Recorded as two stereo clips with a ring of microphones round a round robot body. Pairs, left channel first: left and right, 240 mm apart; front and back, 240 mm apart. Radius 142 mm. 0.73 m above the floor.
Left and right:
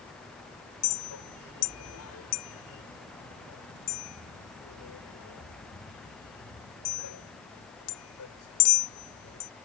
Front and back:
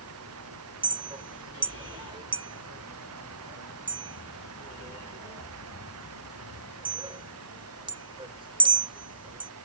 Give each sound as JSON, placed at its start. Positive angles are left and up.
{"t": 0.8, "sound": "a clink", "azimuth_deg": 110}